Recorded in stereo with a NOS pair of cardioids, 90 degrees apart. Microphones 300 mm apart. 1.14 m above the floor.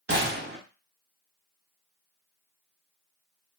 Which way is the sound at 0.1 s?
35° right.